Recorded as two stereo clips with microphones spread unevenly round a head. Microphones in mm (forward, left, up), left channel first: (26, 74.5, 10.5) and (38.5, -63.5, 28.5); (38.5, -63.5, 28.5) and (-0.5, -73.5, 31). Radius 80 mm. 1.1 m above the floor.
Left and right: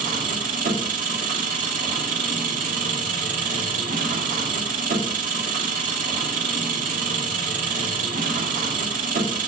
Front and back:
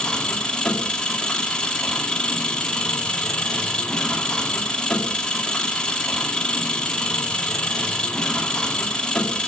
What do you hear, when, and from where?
0.0 s an engine running: 55° right, 2 m